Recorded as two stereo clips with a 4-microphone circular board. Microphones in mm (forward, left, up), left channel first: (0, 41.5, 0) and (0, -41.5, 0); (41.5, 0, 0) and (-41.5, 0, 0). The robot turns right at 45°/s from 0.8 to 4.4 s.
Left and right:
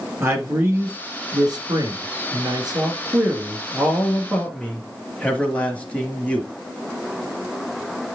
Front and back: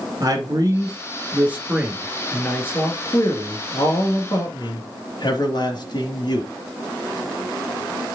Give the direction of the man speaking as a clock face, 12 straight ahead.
5 o'clock.